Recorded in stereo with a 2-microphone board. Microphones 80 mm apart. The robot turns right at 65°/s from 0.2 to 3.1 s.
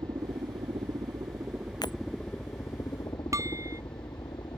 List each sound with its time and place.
0.0 s a helicopter: 120° right; by 4.6 s 70° left
1.8 s breaking glass: 60° left (ahead or behind); by 2.0 s 70° left (ahead or behind)
3.3 s dishes clattering: 40° right (ahead or behind)